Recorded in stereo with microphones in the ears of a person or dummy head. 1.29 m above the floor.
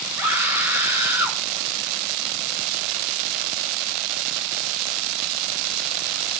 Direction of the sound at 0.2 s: 20° right (ahead or behind).